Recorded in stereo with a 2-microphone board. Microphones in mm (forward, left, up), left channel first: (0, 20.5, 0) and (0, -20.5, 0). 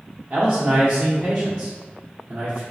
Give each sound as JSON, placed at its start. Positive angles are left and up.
{"t": 0.3, "sound": "a man speaking", "side_deg": -50, "distance_m": 1.6}